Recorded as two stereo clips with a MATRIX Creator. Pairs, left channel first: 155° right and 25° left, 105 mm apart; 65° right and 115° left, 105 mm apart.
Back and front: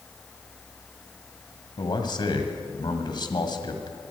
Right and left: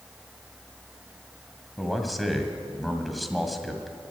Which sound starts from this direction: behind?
A man speaking, at 1.8 s.